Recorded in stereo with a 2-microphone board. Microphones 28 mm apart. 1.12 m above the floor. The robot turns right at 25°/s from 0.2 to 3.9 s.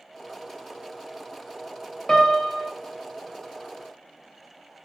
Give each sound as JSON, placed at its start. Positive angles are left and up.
{"t": 2.1, "sound": "a piano", "side_deg": 20, "distance_m": 0.5}